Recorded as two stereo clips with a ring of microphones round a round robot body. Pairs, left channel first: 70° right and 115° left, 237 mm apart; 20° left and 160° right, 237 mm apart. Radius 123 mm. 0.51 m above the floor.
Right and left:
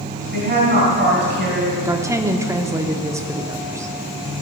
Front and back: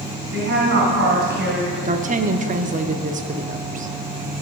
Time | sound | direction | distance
0.3 | a woman speaking | 155° left | 2.5 m
1.9 | a woman speaking | straight behind | 0.8 m